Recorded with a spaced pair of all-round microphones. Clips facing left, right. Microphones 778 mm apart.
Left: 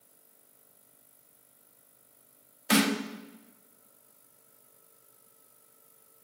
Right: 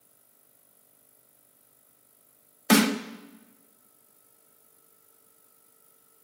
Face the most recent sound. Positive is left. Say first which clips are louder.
# right 4 dB
turn(degrees=-70)  # may be behind; listen again after turning